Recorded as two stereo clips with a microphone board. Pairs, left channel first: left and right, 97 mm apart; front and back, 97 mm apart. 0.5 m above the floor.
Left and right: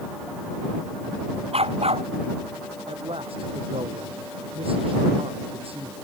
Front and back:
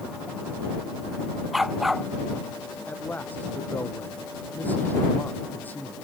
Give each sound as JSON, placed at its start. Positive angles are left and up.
{"t": 1.5, "sound": "a dog barking", "azimuth_deg": -90}
{"t": 2.9, "sound": "a man speaking", "azimuth_deg": -70}